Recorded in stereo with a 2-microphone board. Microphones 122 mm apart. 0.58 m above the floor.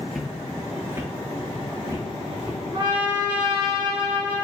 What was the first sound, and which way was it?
Footsteps, centre (ahead or behind).